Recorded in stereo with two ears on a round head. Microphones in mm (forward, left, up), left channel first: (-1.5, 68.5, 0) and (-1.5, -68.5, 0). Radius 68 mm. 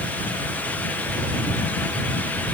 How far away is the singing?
I don't hear singing.